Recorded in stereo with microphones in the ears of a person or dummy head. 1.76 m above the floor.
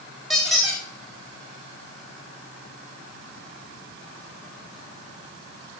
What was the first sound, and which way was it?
A squeak, 5° left (ahead or behind).